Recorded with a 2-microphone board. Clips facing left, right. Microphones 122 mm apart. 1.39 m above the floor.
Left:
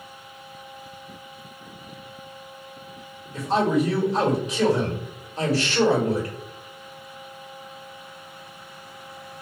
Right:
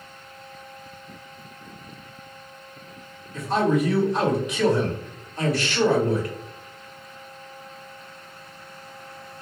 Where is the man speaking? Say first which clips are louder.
Even; 30° left (ahead or behind), 2.0 m.